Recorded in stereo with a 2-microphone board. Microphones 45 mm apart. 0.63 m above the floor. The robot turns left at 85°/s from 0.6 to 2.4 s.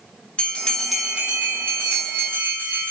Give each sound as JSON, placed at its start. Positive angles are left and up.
{"t": 0.4, "sound": "a bell", "azimuth_deg": 25, "distance_m": 1.1}